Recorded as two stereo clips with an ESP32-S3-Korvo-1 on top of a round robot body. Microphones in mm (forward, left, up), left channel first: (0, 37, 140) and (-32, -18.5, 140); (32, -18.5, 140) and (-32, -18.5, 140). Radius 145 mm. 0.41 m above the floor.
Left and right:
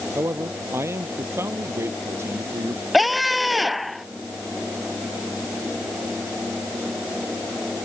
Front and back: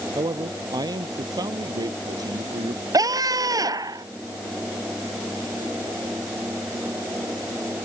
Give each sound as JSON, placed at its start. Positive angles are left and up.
{"t": 0.1, "sound": "a man speaking", "azimuth_deg": -170}
{"t": 2.9, "sound": "a scream", "azimuth_deg": 150}